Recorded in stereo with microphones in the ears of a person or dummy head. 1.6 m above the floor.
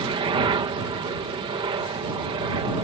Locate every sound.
0.0 s a helicopter: 25° right (ahead or behind)